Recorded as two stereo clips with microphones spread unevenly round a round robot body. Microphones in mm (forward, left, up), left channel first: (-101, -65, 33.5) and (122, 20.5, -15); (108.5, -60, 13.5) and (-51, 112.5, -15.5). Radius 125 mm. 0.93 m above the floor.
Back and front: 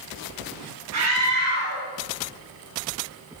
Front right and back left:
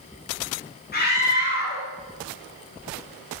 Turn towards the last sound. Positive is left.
turn(degrees=5)